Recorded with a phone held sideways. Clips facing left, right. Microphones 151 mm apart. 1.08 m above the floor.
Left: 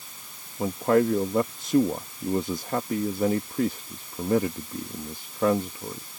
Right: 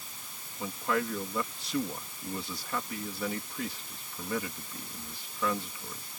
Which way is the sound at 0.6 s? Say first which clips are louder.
Left 10 dB; 45° left (ahead or behind).